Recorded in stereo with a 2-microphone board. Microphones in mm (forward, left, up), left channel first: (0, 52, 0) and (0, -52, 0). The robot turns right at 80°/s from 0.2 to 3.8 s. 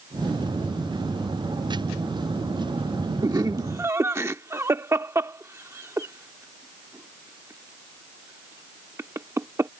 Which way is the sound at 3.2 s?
40° right (ahead or behind).